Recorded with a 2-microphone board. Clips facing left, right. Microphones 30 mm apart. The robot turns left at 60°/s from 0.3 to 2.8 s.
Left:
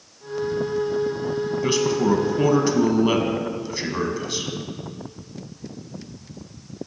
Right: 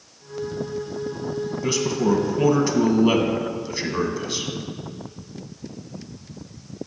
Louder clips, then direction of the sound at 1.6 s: Left 1 dB; 20° left (ahead or behind).